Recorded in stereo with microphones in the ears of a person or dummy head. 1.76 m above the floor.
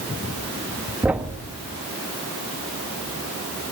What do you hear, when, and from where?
1.0 s a thud: 10° right (ahead or behind), 1.4 m